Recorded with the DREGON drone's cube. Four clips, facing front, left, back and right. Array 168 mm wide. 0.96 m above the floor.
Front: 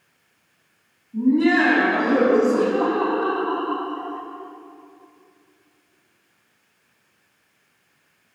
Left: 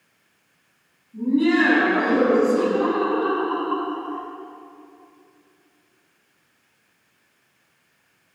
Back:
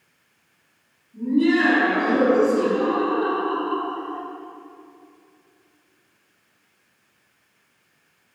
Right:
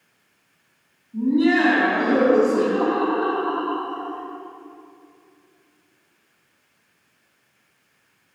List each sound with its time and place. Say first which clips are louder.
1.1 s laughter: right 1 dB, front 2 dB; 30° right, 5 m; by 4.2 s 55° right, 4.5 m